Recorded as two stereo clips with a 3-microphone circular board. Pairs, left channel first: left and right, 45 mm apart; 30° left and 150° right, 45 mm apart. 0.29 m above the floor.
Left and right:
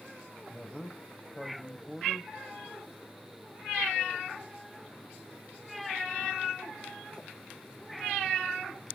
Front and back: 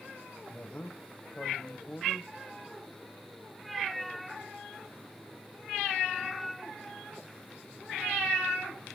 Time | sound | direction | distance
0.5 | a man speaking | 10° left | 1.1 m